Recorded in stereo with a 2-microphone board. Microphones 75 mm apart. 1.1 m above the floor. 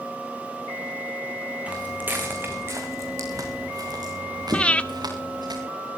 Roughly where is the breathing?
Centre.